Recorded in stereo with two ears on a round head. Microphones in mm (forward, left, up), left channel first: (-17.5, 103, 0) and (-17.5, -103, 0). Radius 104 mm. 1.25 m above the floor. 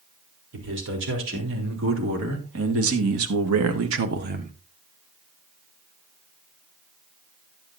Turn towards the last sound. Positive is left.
turn(degrees=-25)  # may be behind; listen again after turning